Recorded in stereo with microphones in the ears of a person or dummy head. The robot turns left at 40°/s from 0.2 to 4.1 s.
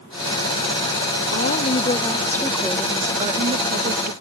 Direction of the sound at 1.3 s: 50° left.